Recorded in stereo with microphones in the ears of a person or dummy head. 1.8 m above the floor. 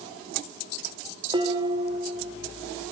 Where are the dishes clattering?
20° right (ahead or behind), 3 m.